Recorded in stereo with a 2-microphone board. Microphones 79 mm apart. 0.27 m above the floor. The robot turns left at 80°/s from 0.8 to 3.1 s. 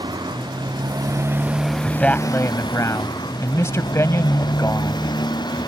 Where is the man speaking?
175° left; by 5.1 s 75° left.